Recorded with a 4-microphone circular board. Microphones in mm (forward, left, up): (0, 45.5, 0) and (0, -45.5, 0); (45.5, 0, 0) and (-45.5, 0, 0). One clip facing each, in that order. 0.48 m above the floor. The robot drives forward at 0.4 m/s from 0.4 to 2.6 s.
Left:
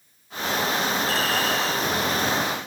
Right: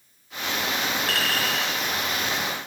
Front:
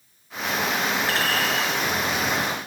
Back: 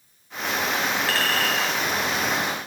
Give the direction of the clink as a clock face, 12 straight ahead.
2 o'clock.